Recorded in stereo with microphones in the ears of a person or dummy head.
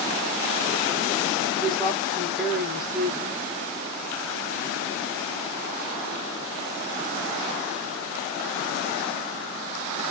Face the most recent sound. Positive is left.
turn(degrees=-5)  # may be behind; listen again after turning